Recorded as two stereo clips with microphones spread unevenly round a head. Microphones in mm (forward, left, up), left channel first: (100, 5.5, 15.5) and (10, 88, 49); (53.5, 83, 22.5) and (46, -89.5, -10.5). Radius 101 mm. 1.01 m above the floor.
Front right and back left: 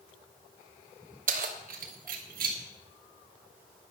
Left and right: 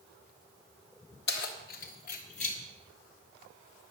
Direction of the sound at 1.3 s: 130° left.